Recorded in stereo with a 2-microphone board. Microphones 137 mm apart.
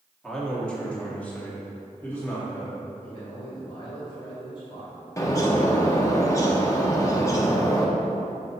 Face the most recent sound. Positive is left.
turn(degrees=25)  # may be behind; listen again after turning